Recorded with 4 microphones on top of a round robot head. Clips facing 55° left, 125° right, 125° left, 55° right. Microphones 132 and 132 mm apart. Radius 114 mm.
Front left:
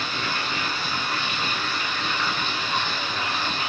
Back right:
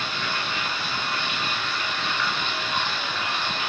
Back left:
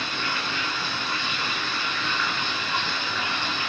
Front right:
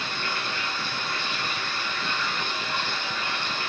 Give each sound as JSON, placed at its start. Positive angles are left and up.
{"t": 0.0, "sound": "running water", "azimuth_deg": 110, "distance_m": 6.0}